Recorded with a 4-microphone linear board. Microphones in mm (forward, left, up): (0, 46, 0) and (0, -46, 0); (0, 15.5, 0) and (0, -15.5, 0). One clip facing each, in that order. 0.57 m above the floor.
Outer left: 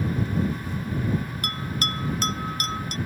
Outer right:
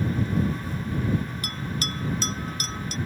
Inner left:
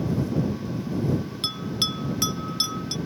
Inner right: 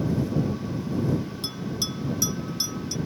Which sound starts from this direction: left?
A bell, at 1.4 s.